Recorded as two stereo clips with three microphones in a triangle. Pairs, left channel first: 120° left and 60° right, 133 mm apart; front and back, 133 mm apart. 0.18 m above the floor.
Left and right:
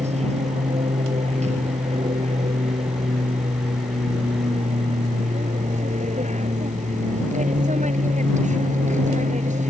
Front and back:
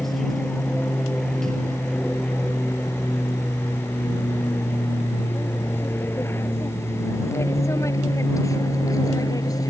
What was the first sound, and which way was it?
An aircraft, 90° right.